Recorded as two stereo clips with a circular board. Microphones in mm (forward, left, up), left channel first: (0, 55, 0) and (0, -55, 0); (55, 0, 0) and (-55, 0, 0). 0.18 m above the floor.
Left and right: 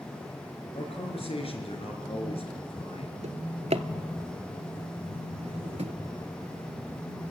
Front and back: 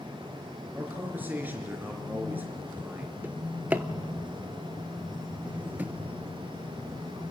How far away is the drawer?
About 0.7 m.